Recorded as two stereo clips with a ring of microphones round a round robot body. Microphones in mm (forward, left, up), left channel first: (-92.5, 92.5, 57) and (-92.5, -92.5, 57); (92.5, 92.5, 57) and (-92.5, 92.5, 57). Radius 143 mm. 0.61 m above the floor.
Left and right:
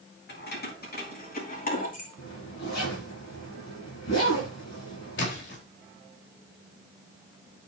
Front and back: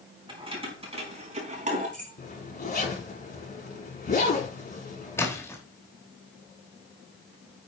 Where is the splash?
75° left, 3.5 m.